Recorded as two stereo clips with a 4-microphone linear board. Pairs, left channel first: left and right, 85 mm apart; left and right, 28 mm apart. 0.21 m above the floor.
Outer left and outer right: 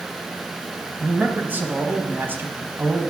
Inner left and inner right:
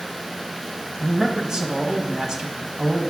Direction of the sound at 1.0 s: 25° right (ahead or behind).